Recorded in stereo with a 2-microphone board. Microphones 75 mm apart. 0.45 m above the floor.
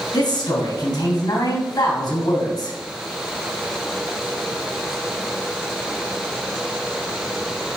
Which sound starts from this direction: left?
A man speaking, at 0.1 s.